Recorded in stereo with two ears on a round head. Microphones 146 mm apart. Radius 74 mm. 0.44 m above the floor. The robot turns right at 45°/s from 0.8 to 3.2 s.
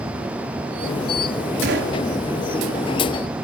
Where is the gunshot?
75° right (ahead or behind), 3.5 m; by 2.0 s 85° right, 3.5 m.